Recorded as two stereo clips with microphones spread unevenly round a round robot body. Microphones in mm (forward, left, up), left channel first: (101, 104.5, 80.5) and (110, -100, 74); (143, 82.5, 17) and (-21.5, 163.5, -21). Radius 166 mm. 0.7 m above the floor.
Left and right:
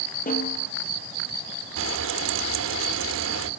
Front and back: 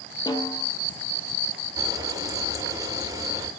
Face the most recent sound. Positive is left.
turn(degrees=-125)